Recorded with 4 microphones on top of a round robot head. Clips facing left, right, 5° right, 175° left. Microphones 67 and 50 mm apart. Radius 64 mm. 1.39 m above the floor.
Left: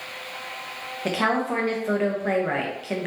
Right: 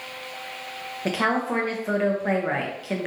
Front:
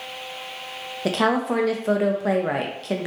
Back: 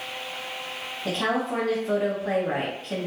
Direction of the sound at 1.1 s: 5° right.